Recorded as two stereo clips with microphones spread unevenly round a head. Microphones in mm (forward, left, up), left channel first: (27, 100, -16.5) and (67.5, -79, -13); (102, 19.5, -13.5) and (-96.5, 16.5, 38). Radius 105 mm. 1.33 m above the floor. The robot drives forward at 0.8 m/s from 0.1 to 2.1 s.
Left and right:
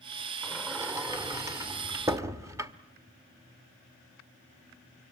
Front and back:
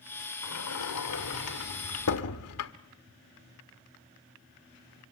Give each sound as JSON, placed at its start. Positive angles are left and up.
{"t": 0.4, "sound": "a sliding door", "azimuth_deg": -5, "distance_m": 2.5}